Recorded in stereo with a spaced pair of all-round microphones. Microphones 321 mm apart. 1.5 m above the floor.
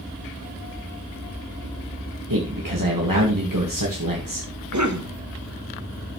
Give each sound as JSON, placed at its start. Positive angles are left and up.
{"t": 2.3, "sound": "a man speaking", "side_deg": -85, "distance_m": 2.0}
{"t": 4.7, "sound": "a cough", "side_deg": -60, "distance_m": 1.4}